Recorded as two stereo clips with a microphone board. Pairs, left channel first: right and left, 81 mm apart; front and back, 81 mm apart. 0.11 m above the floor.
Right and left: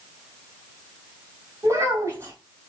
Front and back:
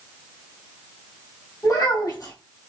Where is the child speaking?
50° left, 2 m.